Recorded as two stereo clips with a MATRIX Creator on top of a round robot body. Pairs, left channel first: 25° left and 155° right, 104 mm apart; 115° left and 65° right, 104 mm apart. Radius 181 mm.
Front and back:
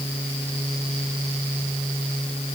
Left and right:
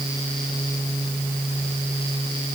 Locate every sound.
Only background noise.